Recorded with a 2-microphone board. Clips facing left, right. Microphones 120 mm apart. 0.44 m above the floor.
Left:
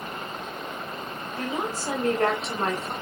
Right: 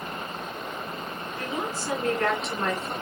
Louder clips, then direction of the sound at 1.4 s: Left 2 dB; 35° left (ahead or behind).